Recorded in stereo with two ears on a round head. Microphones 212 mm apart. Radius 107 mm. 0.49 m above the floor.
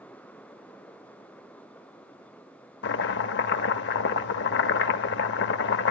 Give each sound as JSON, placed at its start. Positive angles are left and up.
{"t": 2.8, "sound": "chopping", "side_deg": 55, "distance_m": 0.6}